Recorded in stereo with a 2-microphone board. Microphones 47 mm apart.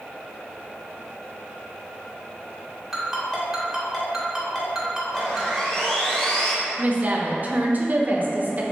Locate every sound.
2.9 s a ringtone: centre (ahead or behind), 1.1 m
5.1 s sawing: 15° left (ahead or behind), 0.8 m
6.8 s a woman speaking: 40° right (ahead or behind), 0.5 m